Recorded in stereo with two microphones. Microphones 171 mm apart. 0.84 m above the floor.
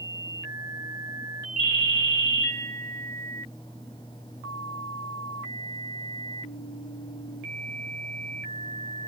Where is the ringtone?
35° left (ahead or behind), 1.8 m.